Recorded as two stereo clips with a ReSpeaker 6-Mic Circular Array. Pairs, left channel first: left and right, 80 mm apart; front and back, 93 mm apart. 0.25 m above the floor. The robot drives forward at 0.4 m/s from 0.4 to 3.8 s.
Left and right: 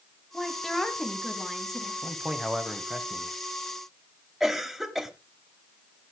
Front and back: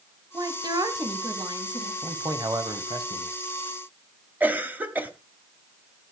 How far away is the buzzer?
No buzzer in this recording.